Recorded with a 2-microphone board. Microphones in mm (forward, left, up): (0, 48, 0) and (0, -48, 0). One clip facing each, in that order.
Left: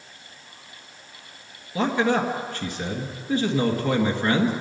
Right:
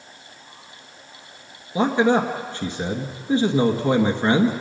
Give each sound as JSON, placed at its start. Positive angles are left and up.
{"t": 1.8, "sound": "a man speaking", "side_deg": -30, "distance_m": 1.6}